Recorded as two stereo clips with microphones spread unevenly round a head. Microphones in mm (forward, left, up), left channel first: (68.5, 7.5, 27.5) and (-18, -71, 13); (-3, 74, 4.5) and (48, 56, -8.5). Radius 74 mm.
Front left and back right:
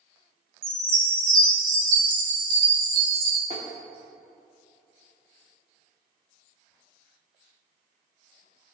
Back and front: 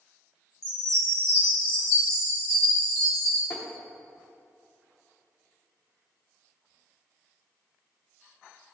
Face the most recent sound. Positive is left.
turn(degrees=165)